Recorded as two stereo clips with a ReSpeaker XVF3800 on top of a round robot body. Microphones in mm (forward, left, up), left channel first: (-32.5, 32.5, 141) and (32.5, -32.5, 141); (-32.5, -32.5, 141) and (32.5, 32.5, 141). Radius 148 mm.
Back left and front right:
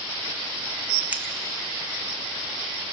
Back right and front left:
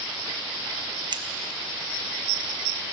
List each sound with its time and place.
1.1 s scissors: 25° left, 0.9 m